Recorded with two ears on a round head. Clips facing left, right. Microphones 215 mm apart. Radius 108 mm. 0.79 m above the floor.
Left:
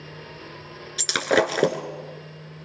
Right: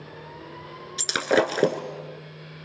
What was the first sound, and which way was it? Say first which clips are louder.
Breaking glass: even; 5° right (ahead or behind).